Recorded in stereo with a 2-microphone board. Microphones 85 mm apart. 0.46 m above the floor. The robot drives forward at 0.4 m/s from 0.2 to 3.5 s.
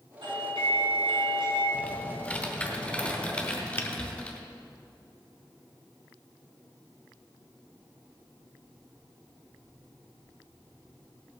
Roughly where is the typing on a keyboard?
Centre.